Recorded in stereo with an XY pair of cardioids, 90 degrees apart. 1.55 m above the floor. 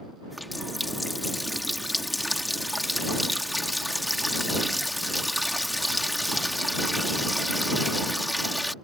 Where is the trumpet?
No trumpet in this recording.